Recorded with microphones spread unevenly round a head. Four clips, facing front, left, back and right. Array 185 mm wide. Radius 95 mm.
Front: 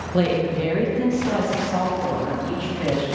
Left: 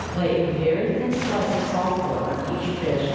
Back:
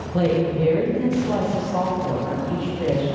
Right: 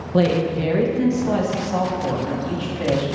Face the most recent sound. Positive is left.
turn(degrees=-50)